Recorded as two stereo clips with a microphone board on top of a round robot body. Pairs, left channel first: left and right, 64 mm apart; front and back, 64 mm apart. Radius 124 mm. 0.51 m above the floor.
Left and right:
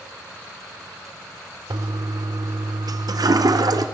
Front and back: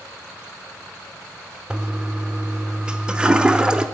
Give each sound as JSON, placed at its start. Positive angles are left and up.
{"t": 1.7, "sound": "a toilet flushing", "azimuth_deg": -105, "distance_m": 0.9}